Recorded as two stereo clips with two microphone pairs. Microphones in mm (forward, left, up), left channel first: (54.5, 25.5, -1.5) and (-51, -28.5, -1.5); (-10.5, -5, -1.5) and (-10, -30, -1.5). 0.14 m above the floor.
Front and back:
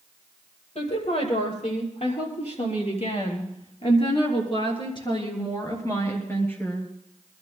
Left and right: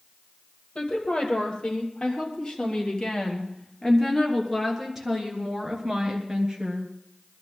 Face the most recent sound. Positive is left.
turn(degrees=-45)